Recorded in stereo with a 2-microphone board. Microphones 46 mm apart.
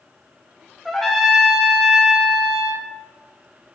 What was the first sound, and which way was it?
A trumpet, centre (ahead or behind).